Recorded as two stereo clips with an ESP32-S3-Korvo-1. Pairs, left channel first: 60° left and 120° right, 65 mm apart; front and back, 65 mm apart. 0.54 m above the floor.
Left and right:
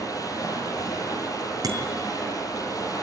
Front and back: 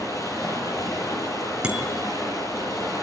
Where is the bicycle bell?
105° right, 5 m.